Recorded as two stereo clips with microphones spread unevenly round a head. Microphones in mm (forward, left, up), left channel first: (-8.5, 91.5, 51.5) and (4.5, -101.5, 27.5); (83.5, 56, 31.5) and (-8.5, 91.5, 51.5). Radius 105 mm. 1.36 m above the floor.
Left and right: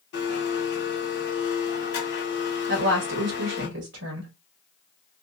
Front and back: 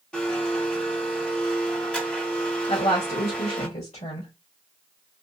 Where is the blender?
60° left, 1.8 m.